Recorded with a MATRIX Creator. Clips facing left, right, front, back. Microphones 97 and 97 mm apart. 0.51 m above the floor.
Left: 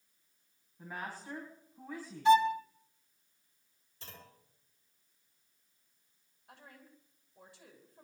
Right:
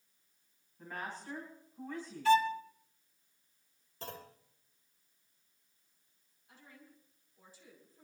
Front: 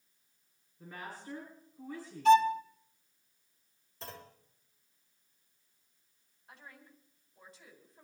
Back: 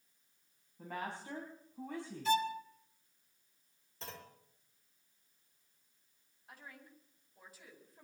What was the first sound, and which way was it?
A woman speaking, 170° left.